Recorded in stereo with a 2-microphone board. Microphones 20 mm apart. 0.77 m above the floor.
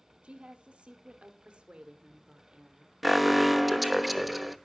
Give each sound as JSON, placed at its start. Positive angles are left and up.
{"t": 0.2, "sound": "a woman speaking", "side_deg": -70, "distance_m": 2.5}
{"t": 3.0, "sound": "an alarm", "side_deg": -5, "distance_m": 1.0}